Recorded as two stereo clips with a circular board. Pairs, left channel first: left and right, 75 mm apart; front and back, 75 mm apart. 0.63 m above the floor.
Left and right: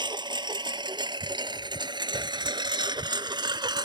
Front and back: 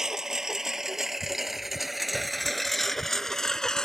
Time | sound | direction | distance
0.0 | a lawn mower | 95° right | ?